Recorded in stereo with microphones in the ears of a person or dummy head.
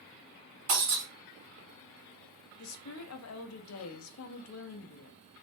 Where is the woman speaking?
80° left, 0.5 m.